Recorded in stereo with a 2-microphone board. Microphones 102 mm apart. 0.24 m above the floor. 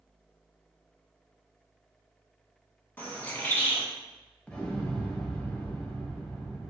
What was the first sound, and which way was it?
A bird, 20° left (ahead or behind).